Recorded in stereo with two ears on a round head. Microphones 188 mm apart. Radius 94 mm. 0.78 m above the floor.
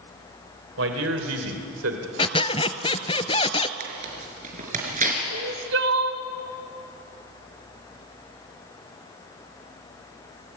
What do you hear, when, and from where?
0.8 s a man speaking: 70° right (ahead or behind), 3 m; by 2.1 s 75° right (ahead or behind), 2.5 m
2.2 s a squeak: 30° left (ahead or behind), 0.9 m
3.8 s tearing paper: 40° right (ahead or behind), 5 m
5.3 s crying: 70° right (ahead or behind), 1.7 m